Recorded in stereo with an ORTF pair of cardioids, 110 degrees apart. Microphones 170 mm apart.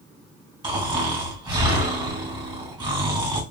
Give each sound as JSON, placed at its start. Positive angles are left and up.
{"t": 0.6, "sound": "snoring", "azimuth_deg": -25, "distance_m": 2.0}